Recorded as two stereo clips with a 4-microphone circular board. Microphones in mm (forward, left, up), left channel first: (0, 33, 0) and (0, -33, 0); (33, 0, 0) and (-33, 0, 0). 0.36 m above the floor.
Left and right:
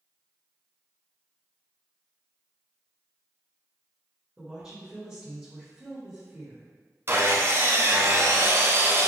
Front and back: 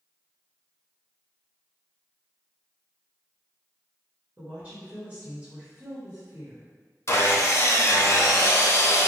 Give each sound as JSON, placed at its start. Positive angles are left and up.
{"t": 4.4, "sound": "a woman speaking", "azimuth_deg": -155, "distance_m": 1.4}
{"t": 7.1, "sound": "sawing", "azimuth_deg": -45, "distance_m": 0.5}